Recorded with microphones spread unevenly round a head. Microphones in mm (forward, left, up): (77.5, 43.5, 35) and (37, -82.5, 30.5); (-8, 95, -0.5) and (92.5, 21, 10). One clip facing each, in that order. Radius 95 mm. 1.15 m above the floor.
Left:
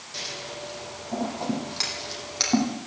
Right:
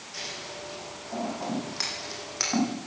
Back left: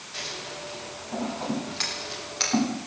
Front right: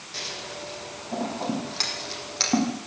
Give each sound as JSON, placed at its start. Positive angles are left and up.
{"t": 0.1, "sound": "scissors", "azimuth_deg": 10, "distance_m": 9.5}